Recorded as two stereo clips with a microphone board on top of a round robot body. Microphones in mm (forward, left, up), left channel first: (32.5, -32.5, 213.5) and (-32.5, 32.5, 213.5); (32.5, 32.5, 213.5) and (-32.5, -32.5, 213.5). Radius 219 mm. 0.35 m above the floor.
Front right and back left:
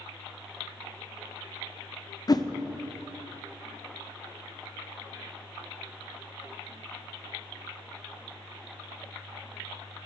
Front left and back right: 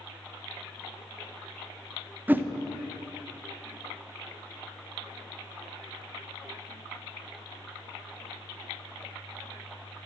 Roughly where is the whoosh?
Right.